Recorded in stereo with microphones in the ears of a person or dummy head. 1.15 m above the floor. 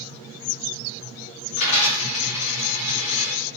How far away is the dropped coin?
About 1.6 m.